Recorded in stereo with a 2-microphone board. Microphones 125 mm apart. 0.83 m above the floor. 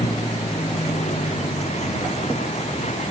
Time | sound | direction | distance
0.0 | a vehicle | 60° left (ahead or behind) | ?